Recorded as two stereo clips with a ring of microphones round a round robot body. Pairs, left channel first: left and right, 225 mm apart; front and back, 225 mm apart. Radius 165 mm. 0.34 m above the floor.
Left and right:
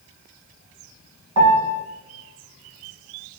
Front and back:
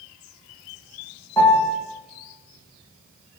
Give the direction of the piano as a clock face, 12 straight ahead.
3 o'clock.